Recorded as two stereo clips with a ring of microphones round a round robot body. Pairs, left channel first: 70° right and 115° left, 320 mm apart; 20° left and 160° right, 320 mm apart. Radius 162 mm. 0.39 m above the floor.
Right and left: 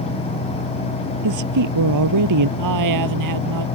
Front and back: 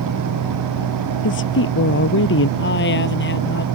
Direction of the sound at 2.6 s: 80° left.